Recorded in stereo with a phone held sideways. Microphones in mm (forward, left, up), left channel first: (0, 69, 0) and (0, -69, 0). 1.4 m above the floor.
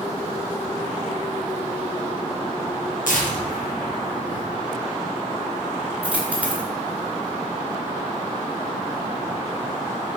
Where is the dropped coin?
10° right (ahead or behind), 3 m.